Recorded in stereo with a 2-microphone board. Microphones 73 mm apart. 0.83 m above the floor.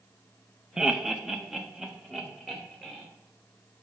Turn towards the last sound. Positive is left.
turn(degrees=-5)  # may be behind; listen again after turning